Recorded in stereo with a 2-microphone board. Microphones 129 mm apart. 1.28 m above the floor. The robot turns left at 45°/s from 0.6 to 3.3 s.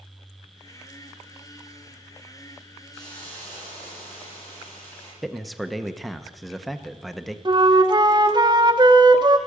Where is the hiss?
Centre (ahead or behind), 8 m; by 5.1 s 20° left (ahead or behind), 8 m.